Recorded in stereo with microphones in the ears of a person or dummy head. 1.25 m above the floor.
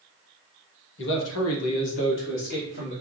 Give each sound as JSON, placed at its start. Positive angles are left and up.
{"t": 1.0, "sound": "a man speaking", "side_deg": 65, "distance_m": 1.0}